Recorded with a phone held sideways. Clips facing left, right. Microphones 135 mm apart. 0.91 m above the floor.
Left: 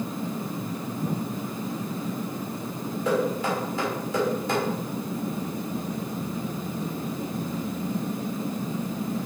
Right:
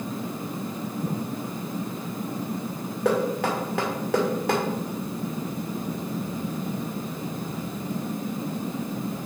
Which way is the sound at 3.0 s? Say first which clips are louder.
Right 2 dB; 70° right (ahead or behind).